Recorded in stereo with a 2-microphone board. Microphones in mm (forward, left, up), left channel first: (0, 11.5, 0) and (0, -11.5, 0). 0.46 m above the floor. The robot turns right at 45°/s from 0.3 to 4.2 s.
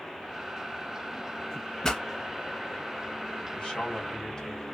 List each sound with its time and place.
1.8 s a pop: 20° left (ahead or behind), 1.1 m; by 2.0 s 30° left (ahead or behind), 1.1 m
3.5 s a man speaking: 110° left, 1.7 m; by 4.6 s 140° left, 1.7 m